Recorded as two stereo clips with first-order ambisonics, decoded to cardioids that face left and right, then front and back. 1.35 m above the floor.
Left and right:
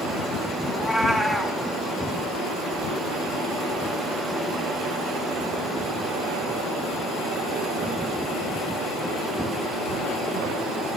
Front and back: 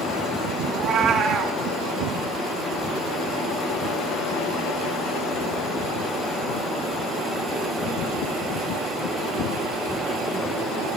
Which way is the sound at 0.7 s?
170° left.